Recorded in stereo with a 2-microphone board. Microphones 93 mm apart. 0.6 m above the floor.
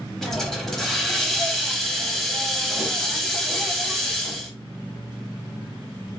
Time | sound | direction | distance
0.2 | a hiss | 5° left (ahead or behind) | 0.6 m